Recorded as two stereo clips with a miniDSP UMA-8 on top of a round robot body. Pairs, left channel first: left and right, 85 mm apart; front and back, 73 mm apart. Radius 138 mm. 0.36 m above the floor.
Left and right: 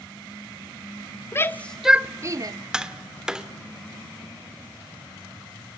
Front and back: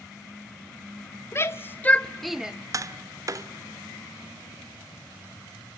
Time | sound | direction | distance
1.3 | a shout | 40° left | 1.1 m
2.7 | tapping | 170° right | 1.6 m